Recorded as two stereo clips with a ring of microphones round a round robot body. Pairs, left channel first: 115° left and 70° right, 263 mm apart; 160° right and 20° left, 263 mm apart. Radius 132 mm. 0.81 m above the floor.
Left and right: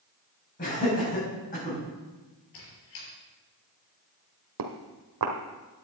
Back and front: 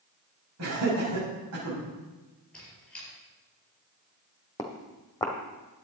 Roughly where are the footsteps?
Right.